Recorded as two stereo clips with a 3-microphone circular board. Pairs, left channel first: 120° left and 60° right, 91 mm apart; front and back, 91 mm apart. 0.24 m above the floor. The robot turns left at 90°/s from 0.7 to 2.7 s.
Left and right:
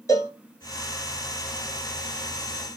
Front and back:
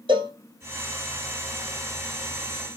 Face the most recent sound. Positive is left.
turn(degrees=-10)